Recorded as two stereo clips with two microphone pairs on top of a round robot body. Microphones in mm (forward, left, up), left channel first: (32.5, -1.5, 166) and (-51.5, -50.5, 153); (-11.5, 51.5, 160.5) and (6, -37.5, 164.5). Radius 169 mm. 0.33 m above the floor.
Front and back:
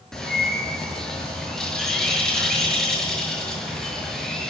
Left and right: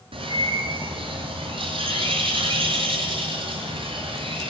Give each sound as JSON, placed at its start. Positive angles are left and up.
{"t": 0.1, "sound": "a bird", "azimuth_deg": -55, "distance_m": 7.5}